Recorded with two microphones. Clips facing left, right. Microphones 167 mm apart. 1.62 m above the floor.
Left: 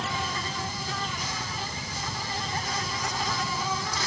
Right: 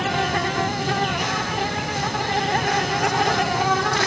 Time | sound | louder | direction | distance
0.0 | an insect | right 10 dB | 70° right (ahead or behind) | ?